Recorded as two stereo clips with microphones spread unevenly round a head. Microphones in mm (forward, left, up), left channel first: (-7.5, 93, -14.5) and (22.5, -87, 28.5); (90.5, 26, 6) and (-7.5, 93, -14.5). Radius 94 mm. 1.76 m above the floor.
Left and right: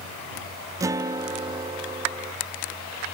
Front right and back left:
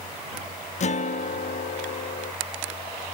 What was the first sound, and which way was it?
A guitar, 5° right.